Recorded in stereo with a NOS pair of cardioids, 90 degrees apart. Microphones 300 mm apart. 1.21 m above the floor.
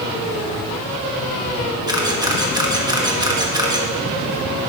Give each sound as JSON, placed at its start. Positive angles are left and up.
{"t": 1.9, "sound": "a camera shutter", "azimuth_deg": -15, "distance_m": 1.3}